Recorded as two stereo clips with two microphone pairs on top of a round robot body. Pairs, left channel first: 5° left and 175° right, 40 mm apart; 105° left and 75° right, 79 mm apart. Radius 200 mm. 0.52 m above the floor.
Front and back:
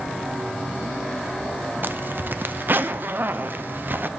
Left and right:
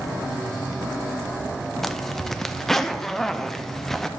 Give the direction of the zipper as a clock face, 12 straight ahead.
6 o'clock.